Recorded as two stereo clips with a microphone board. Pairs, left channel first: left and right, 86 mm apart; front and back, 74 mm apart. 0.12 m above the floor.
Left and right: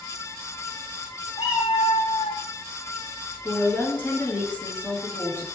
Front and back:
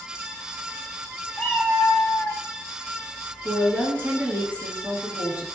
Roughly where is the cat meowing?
Left.